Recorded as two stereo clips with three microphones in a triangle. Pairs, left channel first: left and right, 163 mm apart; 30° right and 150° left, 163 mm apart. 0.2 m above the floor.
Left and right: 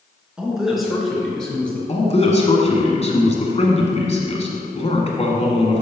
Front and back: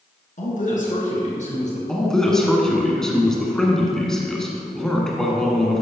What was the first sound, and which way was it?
A man speaking, 5° right.